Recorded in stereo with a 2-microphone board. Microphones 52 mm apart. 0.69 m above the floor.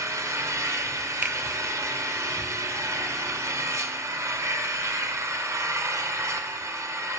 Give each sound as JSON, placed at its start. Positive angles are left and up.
{"t": 0.0, "sound": "an engine running", "side_deg": -75, "distance_m": 1.4}
{"t": 1.2, "sound": "a finger snap", "side_deg": -25, "distance_m": 0.7}